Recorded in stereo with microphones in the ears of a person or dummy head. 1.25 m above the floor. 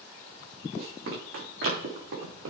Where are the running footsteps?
70° right (ahead or behind), 4 m; by 2.5 s 75° right (ahead or behind), 5.5 m.